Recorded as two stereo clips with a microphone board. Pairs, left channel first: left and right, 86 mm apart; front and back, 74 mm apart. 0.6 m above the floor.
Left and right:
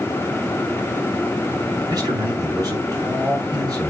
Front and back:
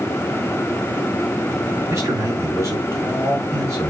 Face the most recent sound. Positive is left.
turn(degrees=-135)